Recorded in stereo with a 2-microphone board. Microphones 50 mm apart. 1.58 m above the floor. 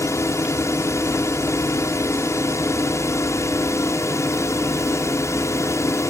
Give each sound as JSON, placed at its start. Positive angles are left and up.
{"t": 0.0, "sound": "a drone", "side_deg": 75}